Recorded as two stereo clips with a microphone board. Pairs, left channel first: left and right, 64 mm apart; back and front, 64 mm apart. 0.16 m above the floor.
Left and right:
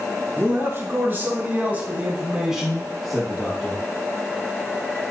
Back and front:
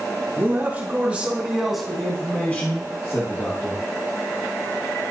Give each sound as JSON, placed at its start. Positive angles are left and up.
{"t": 0.4, "sound": "a man speaking", "azimuth_deg": -50, "distance_m": 2.5}